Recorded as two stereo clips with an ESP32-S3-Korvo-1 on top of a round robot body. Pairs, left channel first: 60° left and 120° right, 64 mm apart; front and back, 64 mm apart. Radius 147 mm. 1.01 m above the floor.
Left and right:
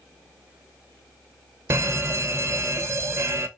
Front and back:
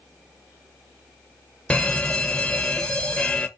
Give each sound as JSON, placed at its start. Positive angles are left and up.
{"t": 1.7, "sound": "an alarm", "azimuth_deg": -75, "distance_m": 0.9}